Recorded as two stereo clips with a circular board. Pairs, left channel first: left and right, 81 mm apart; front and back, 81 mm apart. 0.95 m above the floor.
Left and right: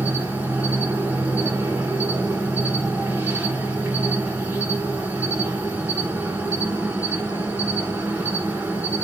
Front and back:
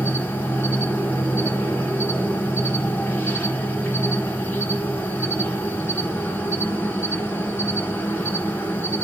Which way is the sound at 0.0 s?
45° right.